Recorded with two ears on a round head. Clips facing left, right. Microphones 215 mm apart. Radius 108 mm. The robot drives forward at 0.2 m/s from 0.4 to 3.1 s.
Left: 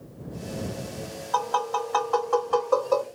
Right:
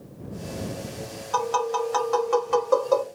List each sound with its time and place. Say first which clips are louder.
1.3 s tapping: right 4 dB; 35° right (ahead or behind), 1.0 m; by 3.0 s 30° right (ahead or behind), 1.1 m